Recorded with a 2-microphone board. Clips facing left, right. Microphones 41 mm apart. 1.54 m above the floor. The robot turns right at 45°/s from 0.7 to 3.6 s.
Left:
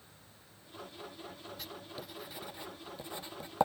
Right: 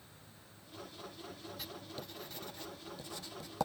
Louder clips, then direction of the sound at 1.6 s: Left 1 dB; 5° right (ahead or behind).